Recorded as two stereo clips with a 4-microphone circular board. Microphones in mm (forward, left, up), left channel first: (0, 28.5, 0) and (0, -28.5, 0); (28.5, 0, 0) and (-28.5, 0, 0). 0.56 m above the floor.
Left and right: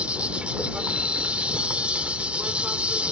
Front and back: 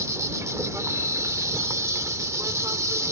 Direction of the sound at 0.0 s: 155° right.